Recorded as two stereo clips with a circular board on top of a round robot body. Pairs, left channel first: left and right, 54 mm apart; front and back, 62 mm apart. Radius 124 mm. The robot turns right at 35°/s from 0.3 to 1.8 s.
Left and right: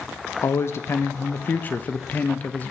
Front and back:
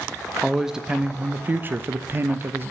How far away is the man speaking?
About 0.6 m.